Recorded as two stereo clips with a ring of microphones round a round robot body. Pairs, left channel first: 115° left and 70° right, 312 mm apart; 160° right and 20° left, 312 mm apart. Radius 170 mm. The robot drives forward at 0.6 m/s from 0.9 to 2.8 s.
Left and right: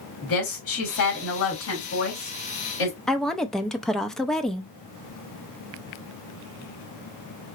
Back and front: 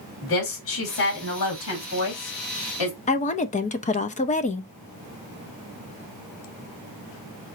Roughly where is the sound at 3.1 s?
Behind.